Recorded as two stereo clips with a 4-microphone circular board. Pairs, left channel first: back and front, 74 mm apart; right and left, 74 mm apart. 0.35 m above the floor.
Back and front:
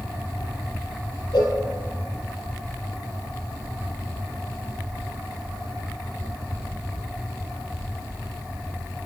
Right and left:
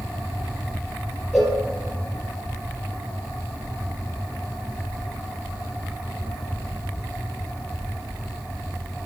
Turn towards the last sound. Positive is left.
turn(degrees=-175)